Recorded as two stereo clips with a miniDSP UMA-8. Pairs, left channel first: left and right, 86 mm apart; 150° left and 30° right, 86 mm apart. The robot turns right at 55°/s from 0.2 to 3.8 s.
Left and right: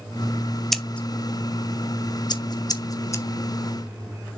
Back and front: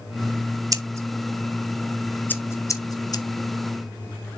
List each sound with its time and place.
0.7 s scissors: straight ahead, 0.9 m; by 3.2 s 140° left, 0.9 m